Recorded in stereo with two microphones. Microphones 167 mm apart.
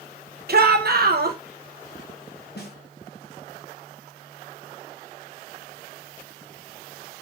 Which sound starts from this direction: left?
A snare drum, at 2.6 s.